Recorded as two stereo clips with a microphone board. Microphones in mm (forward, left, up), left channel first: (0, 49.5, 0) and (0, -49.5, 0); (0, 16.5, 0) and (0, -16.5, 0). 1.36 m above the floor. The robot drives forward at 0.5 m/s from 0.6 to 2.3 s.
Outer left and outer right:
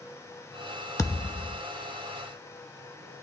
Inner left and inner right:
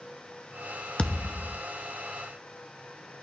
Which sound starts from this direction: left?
A thud, at 1.0 s.